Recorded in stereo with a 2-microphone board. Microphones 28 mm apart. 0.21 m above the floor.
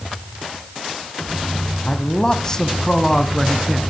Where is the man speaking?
30° left (ahead or behind), 1.2 m; by 3.8 s 5° left (ahead or behind), 2 m.